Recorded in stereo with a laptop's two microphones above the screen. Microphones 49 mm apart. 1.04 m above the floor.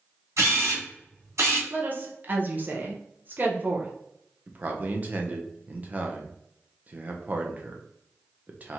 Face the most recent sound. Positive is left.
turn(degrees=-30)  # may be behind; listen again after turning